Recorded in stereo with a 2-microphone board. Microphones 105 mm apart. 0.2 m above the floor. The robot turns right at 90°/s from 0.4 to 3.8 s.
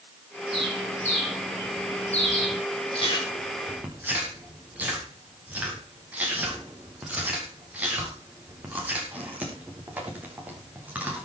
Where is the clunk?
No clunk in this recording.